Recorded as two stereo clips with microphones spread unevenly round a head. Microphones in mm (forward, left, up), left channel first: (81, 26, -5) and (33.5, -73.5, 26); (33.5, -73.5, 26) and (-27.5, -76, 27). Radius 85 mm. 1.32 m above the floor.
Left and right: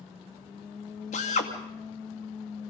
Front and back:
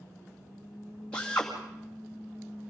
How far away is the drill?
About 2.5 m.